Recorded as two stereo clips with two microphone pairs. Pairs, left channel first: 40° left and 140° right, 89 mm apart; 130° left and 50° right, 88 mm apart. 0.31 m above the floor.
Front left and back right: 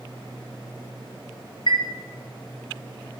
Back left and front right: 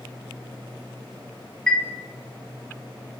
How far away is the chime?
About 0.9 m.